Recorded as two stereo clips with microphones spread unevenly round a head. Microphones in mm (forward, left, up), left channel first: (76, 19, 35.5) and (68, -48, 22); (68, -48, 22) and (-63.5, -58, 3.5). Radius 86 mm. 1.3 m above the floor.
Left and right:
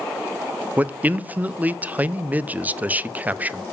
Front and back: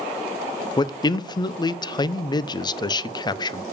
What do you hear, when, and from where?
0.8 s a man speaking: 50° right, 0.6 m